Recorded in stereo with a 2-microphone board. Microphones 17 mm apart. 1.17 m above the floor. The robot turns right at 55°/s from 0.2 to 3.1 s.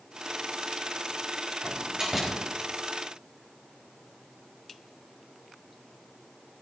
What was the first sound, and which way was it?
A door slam, 50° right (ahead or behind).